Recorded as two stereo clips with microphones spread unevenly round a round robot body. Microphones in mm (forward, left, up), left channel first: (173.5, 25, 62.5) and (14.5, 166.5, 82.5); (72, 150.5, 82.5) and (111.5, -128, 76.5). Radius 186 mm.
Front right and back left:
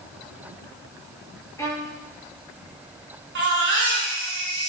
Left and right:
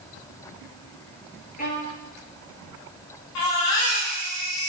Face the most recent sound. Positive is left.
turn(degrees=110)